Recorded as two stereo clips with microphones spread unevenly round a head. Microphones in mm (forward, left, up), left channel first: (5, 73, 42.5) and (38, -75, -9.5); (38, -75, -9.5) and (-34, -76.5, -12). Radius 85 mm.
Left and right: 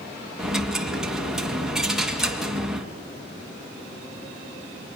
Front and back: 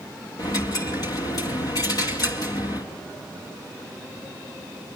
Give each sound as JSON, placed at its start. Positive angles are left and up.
{"t": 0.4, "sound": "a dropped coin", "azimuth_deg": 20, "distance_m": 2.0}